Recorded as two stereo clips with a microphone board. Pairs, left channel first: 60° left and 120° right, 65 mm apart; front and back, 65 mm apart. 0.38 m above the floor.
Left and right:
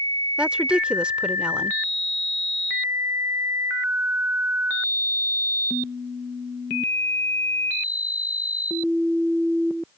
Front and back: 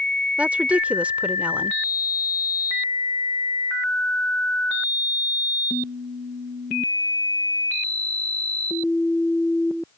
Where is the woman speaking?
170° right.